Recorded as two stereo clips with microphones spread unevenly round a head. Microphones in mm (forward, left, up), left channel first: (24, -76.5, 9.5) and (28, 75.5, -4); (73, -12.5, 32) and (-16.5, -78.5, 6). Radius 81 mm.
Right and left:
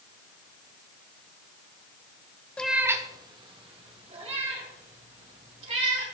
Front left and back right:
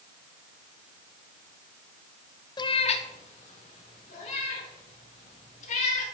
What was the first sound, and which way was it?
A cat meowing, 10° right.